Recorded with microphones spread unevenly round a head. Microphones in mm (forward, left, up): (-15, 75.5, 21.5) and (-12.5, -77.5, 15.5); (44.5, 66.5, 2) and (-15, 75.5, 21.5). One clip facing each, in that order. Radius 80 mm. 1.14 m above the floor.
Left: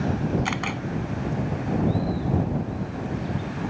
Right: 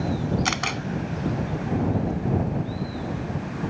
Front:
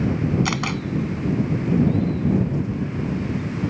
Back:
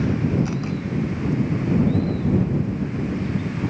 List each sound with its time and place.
0.5 s a camera shutter: 45° right